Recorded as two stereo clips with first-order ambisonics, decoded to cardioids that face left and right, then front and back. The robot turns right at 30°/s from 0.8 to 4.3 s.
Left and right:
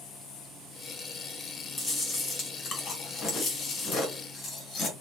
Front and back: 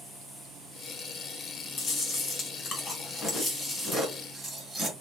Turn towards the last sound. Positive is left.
turn(degrees=95)